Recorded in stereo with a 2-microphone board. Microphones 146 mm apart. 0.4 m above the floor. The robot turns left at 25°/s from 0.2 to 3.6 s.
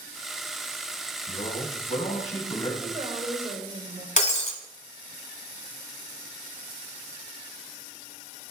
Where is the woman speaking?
40° right (ahead or behind), 1.5 m; by 4.1 s 45° right (ahead or behind), 1.5 m.